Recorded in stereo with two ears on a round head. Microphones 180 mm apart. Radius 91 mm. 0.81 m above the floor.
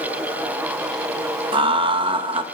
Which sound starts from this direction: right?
Laughter, at 1.5 s.